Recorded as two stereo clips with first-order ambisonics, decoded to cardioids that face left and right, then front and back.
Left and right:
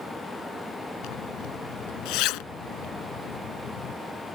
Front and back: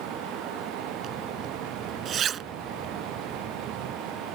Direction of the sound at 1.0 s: 120° left.